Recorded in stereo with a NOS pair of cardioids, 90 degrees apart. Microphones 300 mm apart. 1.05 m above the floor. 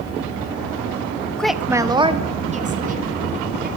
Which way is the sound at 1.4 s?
5° left.